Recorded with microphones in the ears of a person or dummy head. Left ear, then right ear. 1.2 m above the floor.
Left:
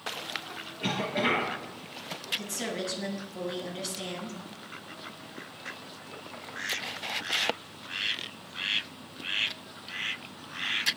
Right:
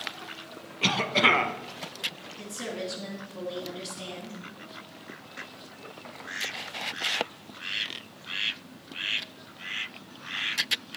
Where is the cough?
40° right (ahead or behind), 1.0 m.